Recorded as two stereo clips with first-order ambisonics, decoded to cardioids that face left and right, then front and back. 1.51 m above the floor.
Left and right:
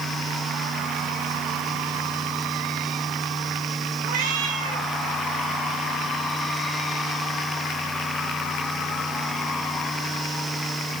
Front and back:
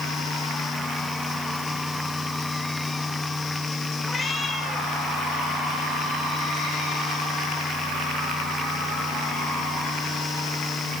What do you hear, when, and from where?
4.0 s a cat meowing: 80° right, 5 m